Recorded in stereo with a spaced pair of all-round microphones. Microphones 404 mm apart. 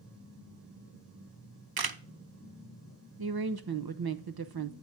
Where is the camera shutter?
60° right (ahead or behind), 0.5 m.